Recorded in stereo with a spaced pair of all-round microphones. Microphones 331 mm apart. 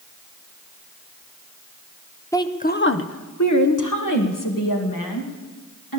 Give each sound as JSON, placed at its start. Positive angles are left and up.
{"t": 2.3, "sound": "a woman speaking", "side_deg": 10, "distance_m": 0.8}